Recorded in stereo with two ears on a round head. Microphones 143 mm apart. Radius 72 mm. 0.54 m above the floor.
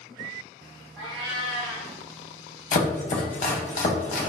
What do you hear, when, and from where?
1.0 s a cat meowing: 5° right (ahead or behind), 1.9 m
2.7 s chopping: 45° left (ahead or behind), 0.5 m